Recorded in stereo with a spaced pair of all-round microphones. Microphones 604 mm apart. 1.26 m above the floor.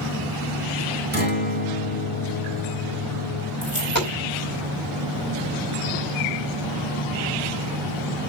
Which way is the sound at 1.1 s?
15° left (ahead or behind).